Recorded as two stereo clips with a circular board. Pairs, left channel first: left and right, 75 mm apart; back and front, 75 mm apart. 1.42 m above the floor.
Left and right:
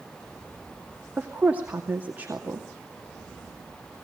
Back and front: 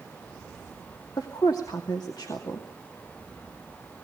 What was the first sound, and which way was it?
A woman speaking, 155° right.